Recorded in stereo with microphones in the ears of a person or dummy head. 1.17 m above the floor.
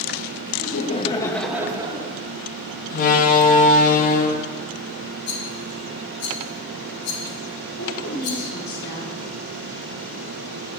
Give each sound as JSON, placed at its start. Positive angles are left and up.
{"t": 0.6, "sound": "laughter", "side_deg": 50, "distance_m": 1.3}
{"t": 2.9, "sound": "a door slam", "side_deg": 50, "distance_m": 1.1}
{"t": 5.3, "sound": "a rattle", "side_deg": 70, "distance_m": 1.8}
{"t": 7.8, "sound": "a woman speaking", "side_deg": 60, "distance_m": 3.5}